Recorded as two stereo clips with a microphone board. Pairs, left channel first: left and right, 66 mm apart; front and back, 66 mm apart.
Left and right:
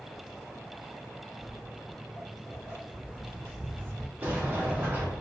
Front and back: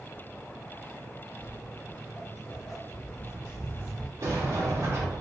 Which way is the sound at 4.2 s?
145° right.